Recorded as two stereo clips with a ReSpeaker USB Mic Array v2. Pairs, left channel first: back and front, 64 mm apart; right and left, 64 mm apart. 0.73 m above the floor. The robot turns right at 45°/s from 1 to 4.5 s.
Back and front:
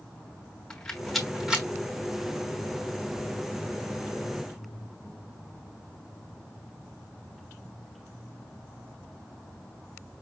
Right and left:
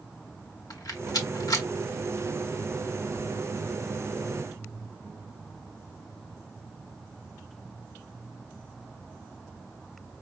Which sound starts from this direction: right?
A rattle, at 0.7 s.